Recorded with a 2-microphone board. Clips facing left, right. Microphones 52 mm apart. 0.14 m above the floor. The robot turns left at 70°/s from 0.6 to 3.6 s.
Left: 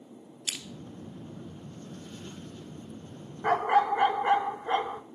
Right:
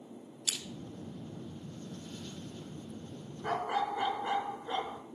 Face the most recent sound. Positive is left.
turn(degrees=45)  # may be behind; listen again after turning